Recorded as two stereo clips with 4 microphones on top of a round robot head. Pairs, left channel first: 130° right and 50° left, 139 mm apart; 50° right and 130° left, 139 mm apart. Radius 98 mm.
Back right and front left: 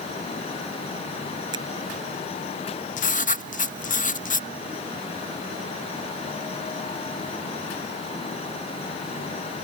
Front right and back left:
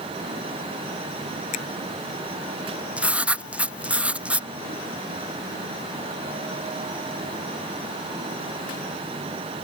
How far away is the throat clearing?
I don't hear throat clearing.